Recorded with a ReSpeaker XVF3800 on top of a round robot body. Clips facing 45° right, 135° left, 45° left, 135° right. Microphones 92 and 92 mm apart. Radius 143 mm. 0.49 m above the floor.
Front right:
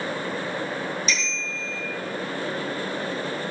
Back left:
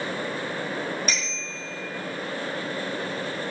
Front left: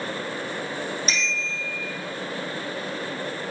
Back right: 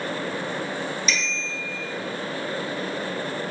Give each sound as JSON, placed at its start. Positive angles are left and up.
{"t": 1.1, "sound": "a bicycle bell", "azimuth_deg": 95, "distance_m": 6.5}